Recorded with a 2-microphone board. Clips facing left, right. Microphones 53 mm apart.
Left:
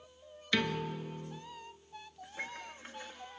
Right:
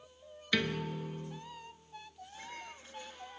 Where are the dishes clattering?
45° left (ahead or behind), 5.5 m.